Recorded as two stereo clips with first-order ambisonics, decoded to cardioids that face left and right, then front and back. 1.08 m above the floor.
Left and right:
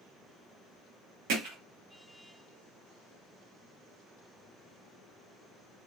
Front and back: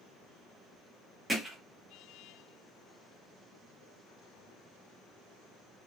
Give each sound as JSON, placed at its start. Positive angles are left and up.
{"t": 1.3, "sound": "hammering", "azimuth_deg": -95, "distance_m": 1.2}